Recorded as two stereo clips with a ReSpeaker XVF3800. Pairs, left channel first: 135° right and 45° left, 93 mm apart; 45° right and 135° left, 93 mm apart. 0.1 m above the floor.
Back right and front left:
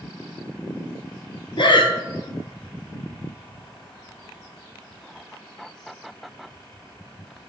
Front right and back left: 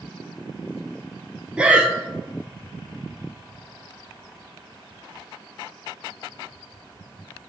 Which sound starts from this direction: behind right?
Breathing, at 1.6 s.